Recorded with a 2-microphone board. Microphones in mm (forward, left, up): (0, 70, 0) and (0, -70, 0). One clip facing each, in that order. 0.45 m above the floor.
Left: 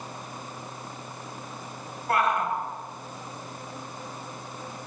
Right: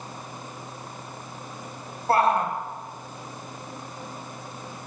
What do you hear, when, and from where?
2.1 s a shout: 30° right (ahead or behind), 3 m